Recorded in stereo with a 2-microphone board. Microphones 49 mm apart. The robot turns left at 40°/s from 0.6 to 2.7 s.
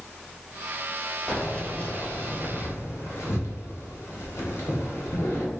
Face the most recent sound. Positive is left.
turn(degrees=70)  # may be behind; listen again after turning